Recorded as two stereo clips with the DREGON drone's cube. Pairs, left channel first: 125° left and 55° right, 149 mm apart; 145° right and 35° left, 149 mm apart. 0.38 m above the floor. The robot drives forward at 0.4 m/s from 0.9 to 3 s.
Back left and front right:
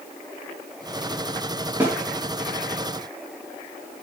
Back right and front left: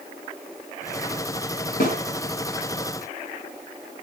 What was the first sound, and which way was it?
A snare drum, 130° right.